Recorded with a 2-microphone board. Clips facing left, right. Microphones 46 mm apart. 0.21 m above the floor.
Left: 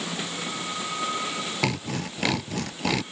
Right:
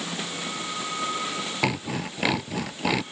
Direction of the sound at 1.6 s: 10° right (ahead or behind).